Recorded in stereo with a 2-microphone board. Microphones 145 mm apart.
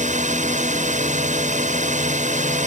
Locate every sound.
0.0 s a drone: 55° right (ahead or behind)